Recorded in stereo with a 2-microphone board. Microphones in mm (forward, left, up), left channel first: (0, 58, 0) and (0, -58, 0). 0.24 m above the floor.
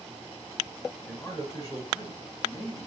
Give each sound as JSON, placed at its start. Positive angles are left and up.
{"t": 1.1, "sound": "a man speaking", "side_deg": 15, "distance_m": 1.4}